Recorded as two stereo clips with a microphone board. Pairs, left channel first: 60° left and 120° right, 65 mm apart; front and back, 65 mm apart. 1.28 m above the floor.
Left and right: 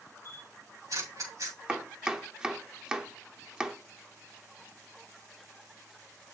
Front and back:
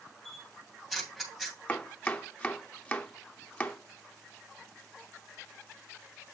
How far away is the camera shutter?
About 2.5 m.